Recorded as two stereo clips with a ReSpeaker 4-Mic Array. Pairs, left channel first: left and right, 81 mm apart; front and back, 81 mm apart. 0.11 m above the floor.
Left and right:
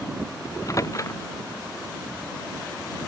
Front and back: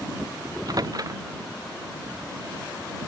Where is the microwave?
140° left.